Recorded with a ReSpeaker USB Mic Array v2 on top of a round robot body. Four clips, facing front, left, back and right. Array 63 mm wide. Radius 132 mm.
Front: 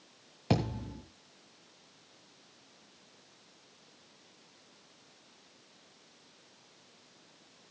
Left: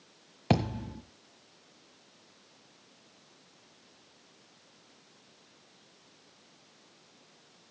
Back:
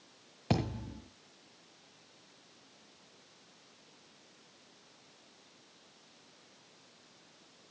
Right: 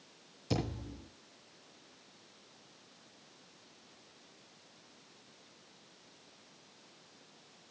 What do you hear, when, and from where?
0.5 s a thud: 85° left, 1.8 m